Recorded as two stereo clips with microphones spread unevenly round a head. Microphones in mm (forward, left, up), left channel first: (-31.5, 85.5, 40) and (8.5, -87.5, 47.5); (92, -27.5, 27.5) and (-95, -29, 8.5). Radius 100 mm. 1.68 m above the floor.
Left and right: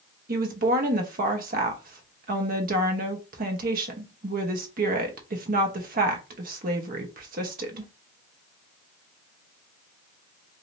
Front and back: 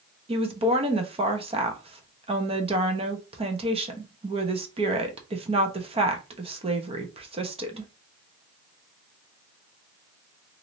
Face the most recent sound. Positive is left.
turn(degrees=-120)